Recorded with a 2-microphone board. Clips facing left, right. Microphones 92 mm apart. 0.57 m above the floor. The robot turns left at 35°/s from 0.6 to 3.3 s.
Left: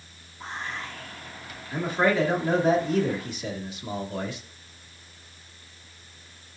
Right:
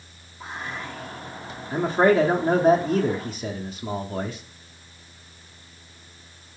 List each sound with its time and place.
0.4 s whispering: 10° right, 0.9 m; by 1.6 s 45° right, 0.9 m
1.7 s a man speaking: 60° right, 0.8 m; by 4.4 s 115° right, 0.8 m